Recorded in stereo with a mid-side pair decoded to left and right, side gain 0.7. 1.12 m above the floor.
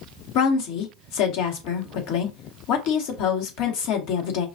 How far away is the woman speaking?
About 2 m.